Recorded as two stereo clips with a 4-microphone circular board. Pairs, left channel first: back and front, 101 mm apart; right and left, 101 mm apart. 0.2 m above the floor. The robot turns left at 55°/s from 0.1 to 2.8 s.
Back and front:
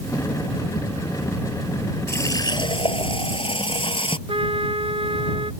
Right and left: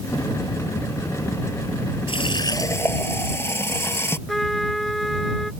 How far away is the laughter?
No laughter in this recording.